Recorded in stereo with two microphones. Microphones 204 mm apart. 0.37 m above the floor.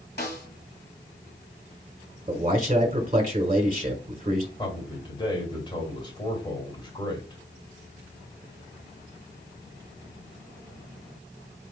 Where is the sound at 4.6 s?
20° left (ahead or behind), 1.5 m.